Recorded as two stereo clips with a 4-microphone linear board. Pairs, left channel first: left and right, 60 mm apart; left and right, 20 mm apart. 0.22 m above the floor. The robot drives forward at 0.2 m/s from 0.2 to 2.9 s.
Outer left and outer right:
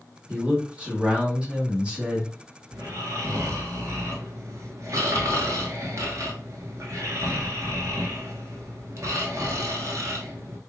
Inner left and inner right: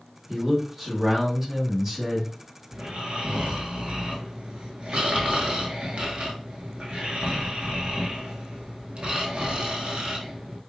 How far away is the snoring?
About 0.8 m.